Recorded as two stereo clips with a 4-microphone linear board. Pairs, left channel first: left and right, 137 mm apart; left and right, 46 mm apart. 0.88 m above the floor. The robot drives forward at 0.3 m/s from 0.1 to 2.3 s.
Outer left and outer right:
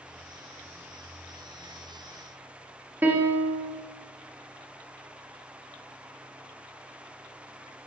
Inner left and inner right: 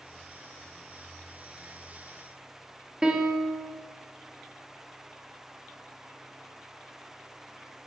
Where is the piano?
15° right (ahead or behind), 0.7 m.